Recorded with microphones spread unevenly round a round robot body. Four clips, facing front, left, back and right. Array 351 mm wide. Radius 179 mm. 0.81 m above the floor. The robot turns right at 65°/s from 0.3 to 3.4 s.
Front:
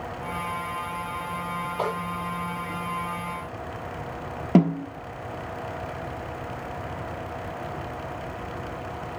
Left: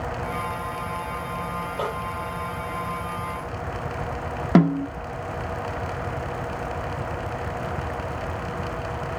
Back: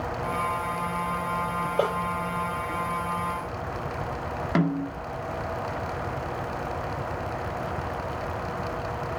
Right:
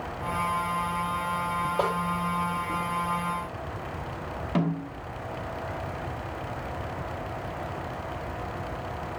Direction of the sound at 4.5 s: 55° left.